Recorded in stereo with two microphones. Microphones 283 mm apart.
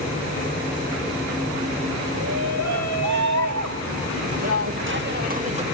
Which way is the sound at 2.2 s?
70° right (ahead or behind).